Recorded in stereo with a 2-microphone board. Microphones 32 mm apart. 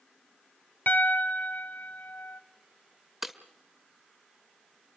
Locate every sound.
0.9 s a piano: 70° left (ahead or behind), 0.9 m
3.2 s breaking glass: 5° right (ahead or behind), 1.3 m